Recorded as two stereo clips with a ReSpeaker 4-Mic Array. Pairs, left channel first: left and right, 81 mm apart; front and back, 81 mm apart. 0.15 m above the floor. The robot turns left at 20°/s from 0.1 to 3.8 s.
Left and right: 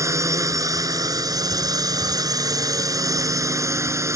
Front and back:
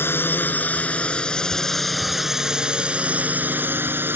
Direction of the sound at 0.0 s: 55° right.